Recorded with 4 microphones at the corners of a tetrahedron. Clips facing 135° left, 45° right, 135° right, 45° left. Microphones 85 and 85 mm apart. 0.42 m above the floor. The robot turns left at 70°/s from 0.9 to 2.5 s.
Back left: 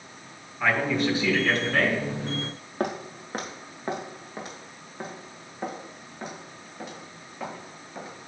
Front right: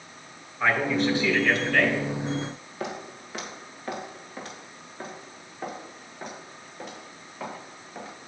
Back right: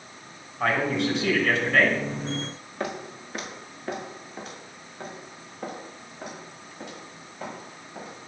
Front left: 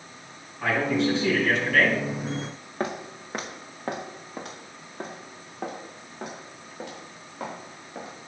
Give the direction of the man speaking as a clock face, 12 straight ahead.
4 o'clock.